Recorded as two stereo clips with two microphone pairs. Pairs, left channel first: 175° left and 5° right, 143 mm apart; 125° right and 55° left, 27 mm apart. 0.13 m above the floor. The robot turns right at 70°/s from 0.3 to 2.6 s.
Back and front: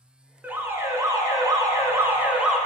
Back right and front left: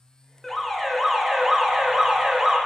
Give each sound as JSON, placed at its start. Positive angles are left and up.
{"t": 0.4, "sound": "an alarm", "azimuth_deg": -70, "distance_m": 0.7}